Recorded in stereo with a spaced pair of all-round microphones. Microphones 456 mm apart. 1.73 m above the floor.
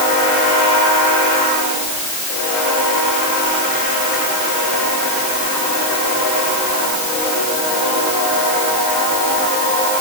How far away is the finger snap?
No finger snap in this recording.